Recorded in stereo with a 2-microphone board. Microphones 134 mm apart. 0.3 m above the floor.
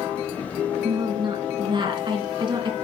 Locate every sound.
0.8 s a woman speaking: 35° right (ahead or behind), 3 m